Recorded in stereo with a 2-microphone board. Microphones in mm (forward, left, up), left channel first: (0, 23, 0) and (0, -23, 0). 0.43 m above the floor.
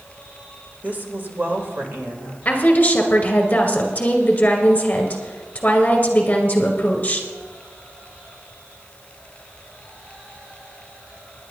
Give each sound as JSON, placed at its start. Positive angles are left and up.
{"t": 0.8, "sound": "a woman speaking", "side_deg": -35, "distance_m": 1.8}
{"t": 2.5, "sound": "a woman speaking", "side_deg": 35, "distance_m": 2.0}